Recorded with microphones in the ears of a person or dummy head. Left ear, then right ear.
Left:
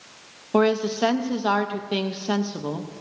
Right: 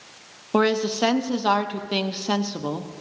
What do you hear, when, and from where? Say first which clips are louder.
0.5 s a woman speaking: even; 10° right (ahead or behind), 0.6 m